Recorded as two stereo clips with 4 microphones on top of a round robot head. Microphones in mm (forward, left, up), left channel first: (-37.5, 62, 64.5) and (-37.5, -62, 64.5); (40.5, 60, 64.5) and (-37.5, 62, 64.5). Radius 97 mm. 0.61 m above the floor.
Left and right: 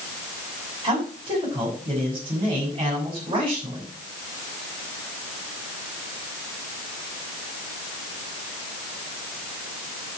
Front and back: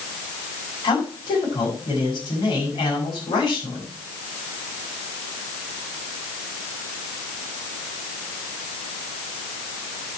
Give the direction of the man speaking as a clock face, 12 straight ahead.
1 o'clock.